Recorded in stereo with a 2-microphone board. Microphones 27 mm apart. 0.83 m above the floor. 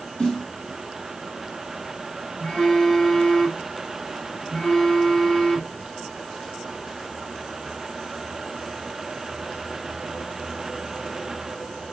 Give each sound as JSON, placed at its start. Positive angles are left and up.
{"t": 0.2, "sound": "a snare drum", "side_deg": 40, "distance_m": 3.5}
{"t": 2.4, "sound": "a phone buzzing", "side_deg": 35, "distance_m": 2.0}